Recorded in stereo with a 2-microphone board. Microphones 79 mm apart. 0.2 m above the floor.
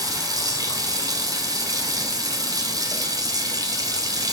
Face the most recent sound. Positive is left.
turn(degrees=-45)  # may be behind; listen again after turning